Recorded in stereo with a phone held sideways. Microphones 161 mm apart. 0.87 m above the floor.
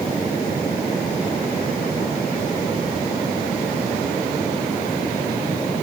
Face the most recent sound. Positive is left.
No sound to turn to.